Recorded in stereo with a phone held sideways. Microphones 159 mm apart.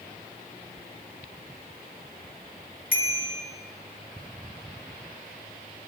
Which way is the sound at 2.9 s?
70° left (ahead or behind).